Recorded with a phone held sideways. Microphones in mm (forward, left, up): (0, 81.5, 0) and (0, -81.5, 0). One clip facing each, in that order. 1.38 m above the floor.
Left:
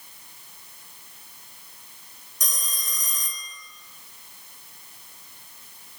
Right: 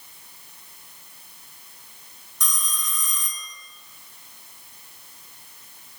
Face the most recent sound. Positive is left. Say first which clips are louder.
# right 3 dB
turn(degrees=40)  # may be behind; listen again after turning